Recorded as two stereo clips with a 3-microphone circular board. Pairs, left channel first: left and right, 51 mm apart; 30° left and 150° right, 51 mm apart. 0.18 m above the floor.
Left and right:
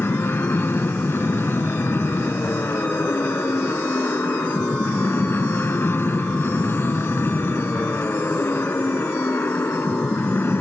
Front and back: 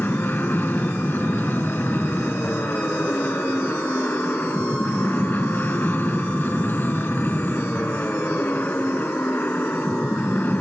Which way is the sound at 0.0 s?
65° left.